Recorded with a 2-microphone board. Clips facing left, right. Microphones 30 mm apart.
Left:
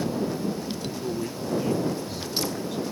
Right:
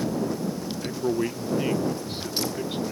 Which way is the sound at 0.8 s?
45° right (ahead or behind).